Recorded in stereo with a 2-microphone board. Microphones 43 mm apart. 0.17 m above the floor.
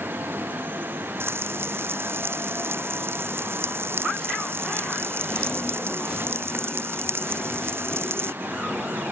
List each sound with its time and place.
1.2 s frying: 65° right (ahead or behind)